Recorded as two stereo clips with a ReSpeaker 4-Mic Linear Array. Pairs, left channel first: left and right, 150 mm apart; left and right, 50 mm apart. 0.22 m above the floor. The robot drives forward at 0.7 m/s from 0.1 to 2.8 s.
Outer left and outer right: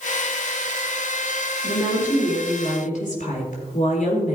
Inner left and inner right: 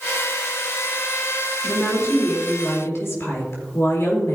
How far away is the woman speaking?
About 4.5 m.